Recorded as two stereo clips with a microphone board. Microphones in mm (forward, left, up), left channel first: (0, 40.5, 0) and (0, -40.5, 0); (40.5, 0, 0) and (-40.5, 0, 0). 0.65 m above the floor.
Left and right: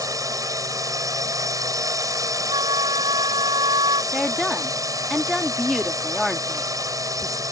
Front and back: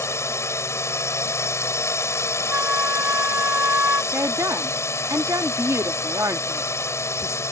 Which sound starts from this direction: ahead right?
A drone, at 0.0 s.